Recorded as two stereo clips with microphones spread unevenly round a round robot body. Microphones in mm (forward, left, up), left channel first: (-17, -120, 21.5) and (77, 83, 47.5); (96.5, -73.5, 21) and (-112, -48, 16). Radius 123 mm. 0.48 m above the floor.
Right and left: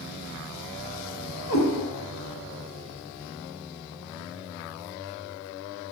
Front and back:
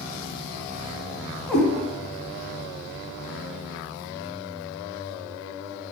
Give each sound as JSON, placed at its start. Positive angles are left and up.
{"t": 1.5, "sound": "a cat meowing", "azimuth_deg": -95, "distance_m": 0.9}